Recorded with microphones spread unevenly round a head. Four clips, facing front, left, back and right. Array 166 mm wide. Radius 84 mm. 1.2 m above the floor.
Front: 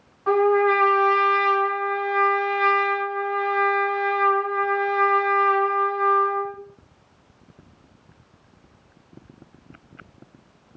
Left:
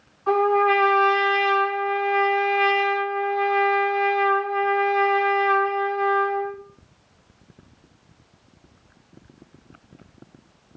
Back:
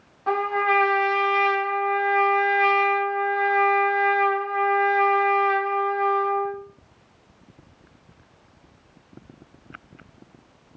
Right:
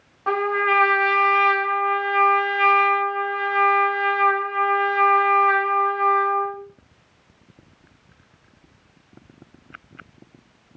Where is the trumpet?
80° right, 1.6 m.